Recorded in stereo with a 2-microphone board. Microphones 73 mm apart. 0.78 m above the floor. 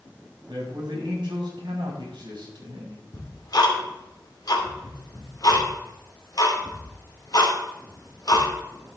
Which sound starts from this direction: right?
A man speaking, at 0.5 s.